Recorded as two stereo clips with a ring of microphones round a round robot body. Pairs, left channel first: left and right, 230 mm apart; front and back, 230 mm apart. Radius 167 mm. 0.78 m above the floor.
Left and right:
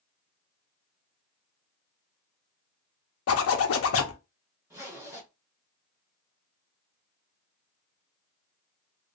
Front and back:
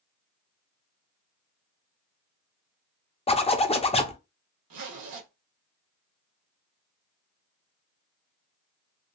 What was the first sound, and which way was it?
A zipper, 65° left.